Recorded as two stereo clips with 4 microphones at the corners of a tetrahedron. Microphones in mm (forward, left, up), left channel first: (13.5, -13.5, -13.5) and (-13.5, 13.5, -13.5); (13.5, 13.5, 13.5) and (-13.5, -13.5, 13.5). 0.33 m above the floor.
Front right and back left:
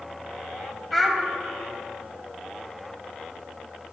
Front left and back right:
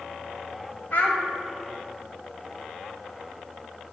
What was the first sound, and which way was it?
A child speaking, 40° left.